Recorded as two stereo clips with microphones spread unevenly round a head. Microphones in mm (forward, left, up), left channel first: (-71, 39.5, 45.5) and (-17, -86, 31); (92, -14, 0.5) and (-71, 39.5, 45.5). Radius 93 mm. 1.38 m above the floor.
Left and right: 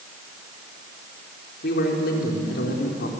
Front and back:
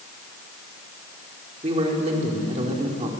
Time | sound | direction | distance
1.6 | a man speaking | 105° left | 4.5 m